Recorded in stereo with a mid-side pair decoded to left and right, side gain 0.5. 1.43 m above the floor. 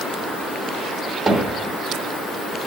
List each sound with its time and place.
1.3 s hammering: 25° right, 3.5 m